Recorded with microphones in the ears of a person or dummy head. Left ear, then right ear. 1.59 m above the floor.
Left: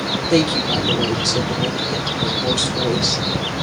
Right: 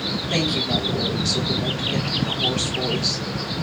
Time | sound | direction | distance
0.3 | a woman speaking | 60° left (ahead or behind) | 1.7 m